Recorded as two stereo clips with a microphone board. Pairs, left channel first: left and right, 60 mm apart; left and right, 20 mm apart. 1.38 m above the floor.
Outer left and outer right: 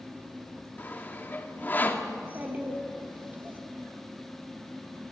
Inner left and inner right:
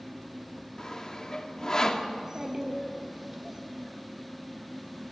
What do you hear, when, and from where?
0.8 s sawing: 35° left (ahead or behind), 2 m
2.1 s a child speaking: 30° right (ahead or behind), 3.5 m